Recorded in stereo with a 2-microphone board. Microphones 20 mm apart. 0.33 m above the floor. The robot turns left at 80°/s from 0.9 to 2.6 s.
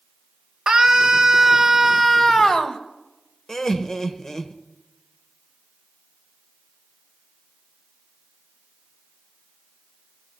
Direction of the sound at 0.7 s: 95° right.